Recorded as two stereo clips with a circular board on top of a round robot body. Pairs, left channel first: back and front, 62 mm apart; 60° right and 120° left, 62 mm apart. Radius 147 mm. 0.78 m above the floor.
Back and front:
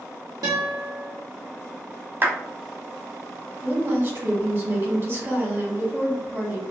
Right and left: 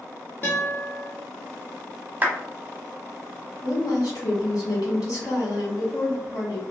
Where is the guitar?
5° left, 0.5 m.